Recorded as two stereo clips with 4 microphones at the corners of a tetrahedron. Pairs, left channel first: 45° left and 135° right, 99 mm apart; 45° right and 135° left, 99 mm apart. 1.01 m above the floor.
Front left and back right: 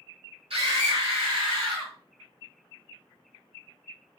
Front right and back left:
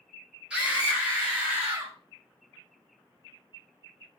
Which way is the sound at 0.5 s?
150° right.